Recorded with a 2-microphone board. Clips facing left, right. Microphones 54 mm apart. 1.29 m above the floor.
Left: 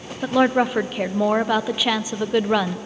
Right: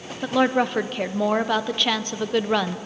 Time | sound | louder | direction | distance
0.2 | a woman speaking | left 2 dB | 10° left (ahead or behind) | 0.7 m